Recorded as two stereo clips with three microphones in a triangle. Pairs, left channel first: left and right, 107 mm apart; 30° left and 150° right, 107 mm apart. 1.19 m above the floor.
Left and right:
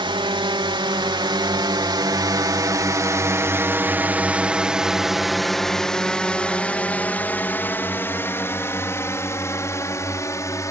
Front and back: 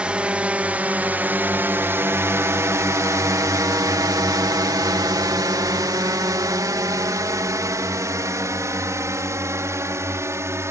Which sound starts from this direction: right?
A drone, at 0.0 s.